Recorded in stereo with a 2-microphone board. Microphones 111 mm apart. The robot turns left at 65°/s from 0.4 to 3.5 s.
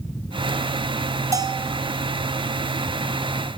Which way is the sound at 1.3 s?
30° right (ahead or behind).